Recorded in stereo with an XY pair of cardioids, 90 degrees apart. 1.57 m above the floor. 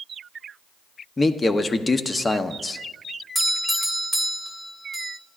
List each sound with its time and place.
1.2 s a man speaking: 30° left, 0.8 m
3.4 s a doorbell: 10° left, 1.7 m